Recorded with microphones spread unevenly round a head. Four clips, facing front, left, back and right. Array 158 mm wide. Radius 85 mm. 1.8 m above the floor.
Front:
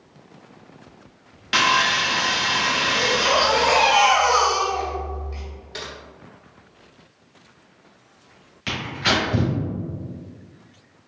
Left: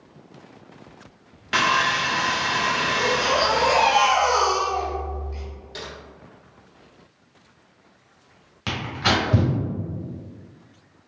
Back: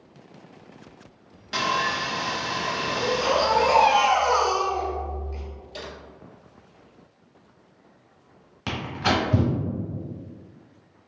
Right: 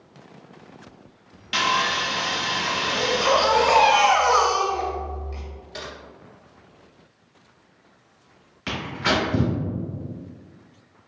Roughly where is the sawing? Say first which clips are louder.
Left 2 dB, front 5 dB; ahead left.